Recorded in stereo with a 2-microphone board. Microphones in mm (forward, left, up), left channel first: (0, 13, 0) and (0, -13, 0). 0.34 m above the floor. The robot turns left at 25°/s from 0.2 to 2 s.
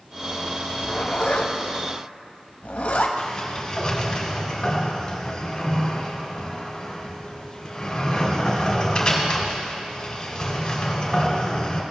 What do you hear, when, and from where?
0.7 s a zipper: 55° left (ahead or behind), 0.7 m; by 3.1 s 70° left (ahead or behind), 0.7 m
3.2 s a sliding door: 30° left (ahead or behind), 1.7 m